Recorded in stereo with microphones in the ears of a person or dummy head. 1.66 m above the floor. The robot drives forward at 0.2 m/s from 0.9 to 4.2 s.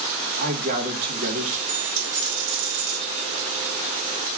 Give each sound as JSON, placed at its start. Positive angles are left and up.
{"t": 0.4, "sound": "a man speaking", "side_deg": -50, "distance_m": 1.4}
{"t": 1.7, "sound": "a dropped coin", "side_deg": -50, "distance_m": 2.0}